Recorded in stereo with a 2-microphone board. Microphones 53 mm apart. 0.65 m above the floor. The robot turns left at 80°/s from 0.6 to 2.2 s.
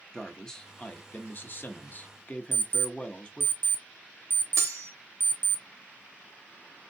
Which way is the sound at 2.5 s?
55° right (ahead or behind).